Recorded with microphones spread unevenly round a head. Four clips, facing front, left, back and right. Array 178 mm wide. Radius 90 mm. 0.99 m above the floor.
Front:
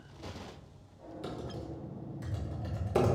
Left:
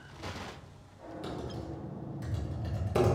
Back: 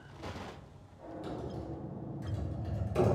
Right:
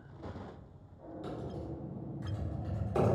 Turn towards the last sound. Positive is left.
turn(degrees=25)